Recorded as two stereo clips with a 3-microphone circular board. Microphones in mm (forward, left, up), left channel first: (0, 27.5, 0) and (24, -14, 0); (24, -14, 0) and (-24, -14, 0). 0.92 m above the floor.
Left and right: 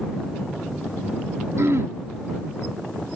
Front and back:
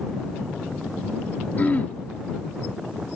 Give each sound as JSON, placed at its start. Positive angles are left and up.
{"t": 1.6, "sound": "throat clearing", "azimuth_deg": -55}